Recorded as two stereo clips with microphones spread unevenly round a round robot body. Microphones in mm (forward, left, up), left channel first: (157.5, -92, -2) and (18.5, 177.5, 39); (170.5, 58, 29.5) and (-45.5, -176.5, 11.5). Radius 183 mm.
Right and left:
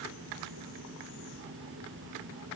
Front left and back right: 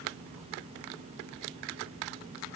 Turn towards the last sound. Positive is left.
No sound to turn to.